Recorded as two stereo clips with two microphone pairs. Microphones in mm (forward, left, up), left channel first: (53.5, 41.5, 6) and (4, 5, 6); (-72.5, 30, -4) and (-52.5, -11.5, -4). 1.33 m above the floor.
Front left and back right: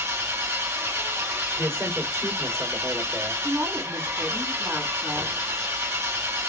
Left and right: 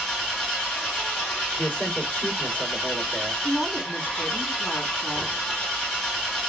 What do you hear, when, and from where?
0.0 s an engine running: 175° right, 1.8 m
1.6 s a man speaking: 175° left, 2.5 m
3.4 s a woman speaking: 165° left, 3 m